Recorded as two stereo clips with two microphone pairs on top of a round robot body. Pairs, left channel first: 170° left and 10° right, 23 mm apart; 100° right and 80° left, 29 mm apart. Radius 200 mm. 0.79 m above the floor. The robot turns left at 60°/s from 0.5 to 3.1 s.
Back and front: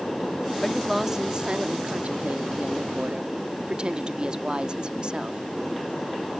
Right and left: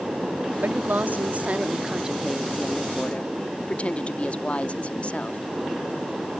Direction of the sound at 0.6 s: 90° left.